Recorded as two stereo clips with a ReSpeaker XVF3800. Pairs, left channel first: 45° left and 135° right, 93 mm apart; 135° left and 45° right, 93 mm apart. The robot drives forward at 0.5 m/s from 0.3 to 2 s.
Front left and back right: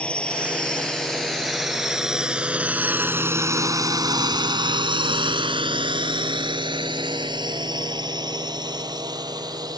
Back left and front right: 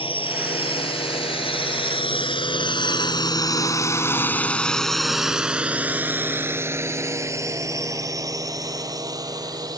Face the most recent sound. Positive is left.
turn(degrees=-90)